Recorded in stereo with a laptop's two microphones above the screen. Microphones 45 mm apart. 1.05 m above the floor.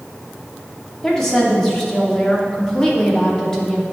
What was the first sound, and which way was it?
A woman speaking, 10° left (ahead or behind).